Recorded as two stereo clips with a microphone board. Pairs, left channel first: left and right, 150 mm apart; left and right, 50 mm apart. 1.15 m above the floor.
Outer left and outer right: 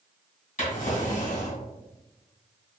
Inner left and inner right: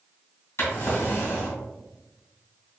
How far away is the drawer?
About 1.9 m.